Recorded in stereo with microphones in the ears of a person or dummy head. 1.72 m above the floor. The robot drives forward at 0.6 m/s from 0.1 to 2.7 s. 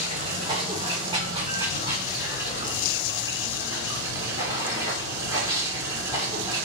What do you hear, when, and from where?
0.0 s running water: 35° right (ahead or behind), 1.8 m; by 6.7 s 20° right (ahead or behind), 3 m